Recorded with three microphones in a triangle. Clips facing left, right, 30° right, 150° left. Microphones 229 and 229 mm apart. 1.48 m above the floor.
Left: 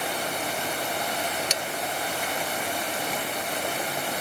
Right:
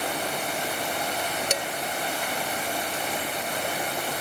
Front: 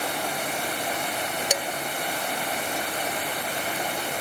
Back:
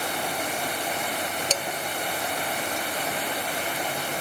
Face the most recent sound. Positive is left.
turn(degrees=-105)